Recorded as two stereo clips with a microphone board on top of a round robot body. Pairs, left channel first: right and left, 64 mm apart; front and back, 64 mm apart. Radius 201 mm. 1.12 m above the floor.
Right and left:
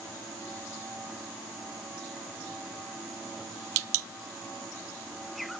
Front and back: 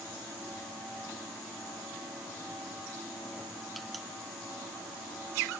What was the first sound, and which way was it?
Only background noise.